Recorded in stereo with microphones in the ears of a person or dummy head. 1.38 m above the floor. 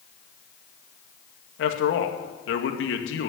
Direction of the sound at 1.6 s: 80° left.